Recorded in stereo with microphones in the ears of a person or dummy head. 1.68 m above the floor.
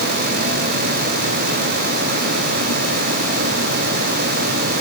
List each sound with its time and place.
Only background noise.